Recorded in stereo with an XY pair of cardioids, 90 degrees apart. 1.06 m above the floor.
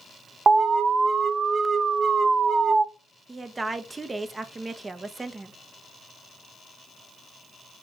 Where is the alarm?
40° right, 0.5 m.